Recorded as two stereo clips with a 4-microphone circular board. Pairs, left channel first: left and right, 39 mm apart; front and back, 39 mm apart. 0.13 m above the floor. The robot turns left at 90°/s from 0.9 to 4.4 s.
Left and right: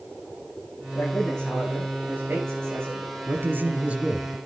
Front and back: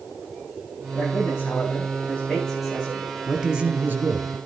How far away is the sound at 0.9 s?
About 9 m.